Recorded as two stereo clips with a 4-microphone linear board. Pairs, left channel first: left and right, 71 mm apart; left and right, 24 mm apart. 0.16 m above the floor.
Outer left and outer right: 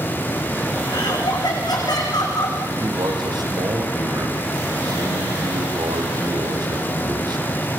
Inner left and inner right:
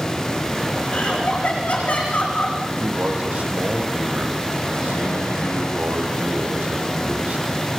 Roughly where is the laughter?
Left.